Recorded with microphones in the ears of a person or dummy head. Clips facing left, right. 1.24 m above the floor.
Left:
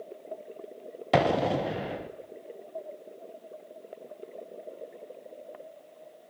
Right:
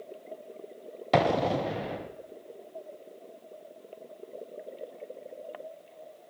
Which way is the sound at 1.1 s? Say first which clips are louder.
Even; 5° left (ahead or behind).